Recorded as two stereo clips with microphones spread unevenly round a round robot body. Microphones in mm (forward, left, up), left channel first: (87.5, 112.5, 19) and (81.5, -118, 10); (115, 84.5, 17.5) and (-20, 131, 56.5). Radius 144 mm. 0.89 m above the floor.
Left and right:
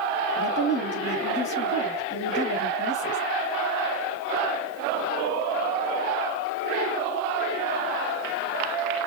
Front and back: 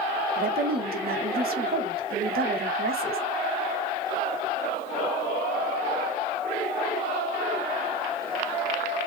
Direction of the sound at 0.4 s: 140° left.